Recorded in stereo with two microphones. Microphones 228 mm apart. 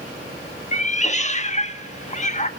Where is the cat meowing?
30° left (ahead or behind), 1.1 m.